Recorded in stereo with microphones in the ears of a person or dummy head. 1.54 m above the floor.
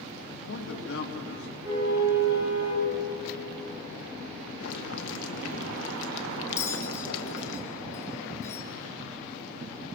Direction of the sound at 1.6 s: 10° right (ahead or behind).